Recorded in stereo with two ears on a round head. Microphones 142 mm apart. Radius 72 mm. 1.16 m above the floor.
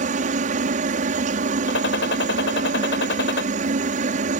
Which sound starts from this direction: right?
A helicopter, at 0.0 s.